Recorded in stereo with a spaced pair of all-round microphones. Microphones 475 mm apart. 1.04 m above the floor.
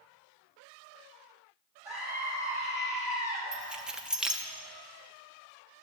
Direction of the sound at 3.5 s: Centre (ahead or behind).